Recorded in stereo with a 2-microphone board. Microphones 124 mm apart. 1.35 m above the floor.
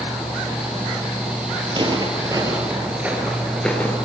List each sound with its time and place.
1.7 s footsteps: 40° right (ahead or behind), 1.9 m; by 4.0 s 15° left (ahead or behind), 1.4 m